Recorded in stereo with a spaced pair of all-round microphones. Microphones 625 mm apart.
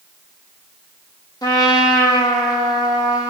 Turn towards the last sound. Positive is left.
turn(degrees=5)  # may be behind; listen again after turning